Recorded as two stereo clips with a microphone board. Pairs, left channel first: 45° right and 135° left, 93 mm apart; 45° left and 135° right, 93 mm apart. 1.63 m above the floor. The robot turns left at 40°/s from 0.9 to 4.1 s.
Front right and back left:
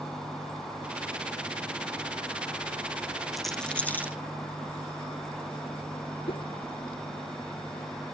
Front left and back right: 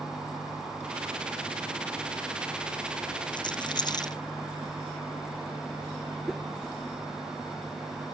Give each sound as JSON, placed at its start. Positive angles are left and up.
{"t": 3.3, "sound": "a rattle", "azimuth_deg": 45}
{"t": 6.3, "sound": "a whoosh", "azimuth_deg": -45}